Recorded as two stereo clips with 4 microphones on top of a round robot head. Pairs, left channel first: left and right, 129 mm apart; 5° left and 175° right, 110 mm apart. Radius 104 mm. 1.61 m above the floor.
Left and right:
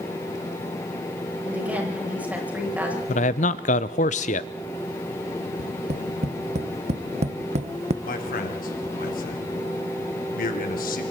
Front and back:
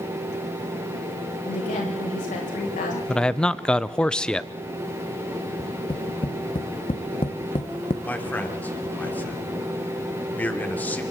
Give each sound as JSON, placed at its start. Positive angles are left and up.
{"t": 1.4, "sound": "a woman speaking", "azimuth_deg": -10, "distance_m": 9.5}
{"t": 3.1, "sound": "a man speaking", "azimuth_deg": 85, "distance_m": 0.6}
{"t": 5.6, "sound": "tapping", "azimuth_deg": -60, "distance_m": 1.0}
{"t": 8.0, "sound": "a man speaking", "azimuth_deg": 80, "distance_m": 4.0}